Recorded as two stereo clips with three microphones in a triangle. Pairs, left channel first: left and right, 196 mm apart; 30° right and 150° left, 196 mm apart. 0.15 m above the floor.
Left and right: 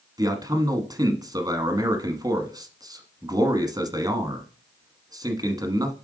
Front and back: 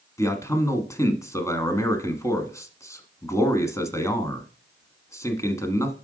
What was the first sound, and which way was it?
A man speaking, 70° right.